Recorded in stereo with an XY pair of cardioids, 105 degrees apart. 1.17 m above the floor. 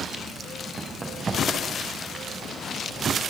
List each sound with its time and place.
0.8 s running footsteps: 25° right, 9.5 m; by 2.2 s 15° right, 8.5 m